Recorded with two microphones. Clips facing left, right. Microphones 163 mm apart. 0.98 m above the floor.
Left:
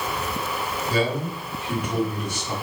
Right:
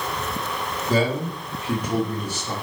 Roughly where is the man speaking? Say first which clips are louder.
Right 3 dB; right.